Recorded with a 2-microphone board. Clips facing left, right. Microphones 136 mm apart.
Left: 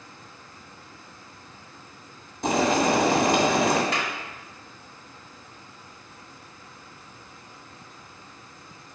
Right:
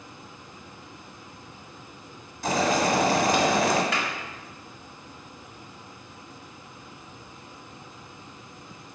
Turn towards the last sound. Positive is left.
turn(degrees=30)  # may be behind; listen again after turning